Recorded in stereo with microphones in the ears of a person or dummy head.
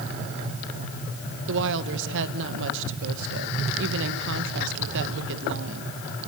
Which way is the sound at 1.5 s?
70° right (ahead or behind).